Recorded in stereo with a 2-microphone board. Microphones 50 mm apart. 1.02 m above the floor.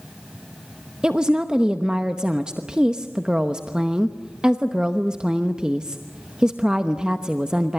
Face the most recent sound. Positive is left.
turn(degrees=-15)  # may be behind; listen again after turning